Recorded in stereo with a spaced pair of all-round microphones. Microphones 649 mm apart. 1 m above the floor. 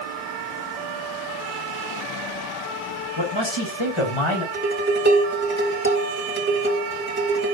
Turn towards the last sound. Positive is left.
turn(degrees=-15)  # may be behind; listen again after turning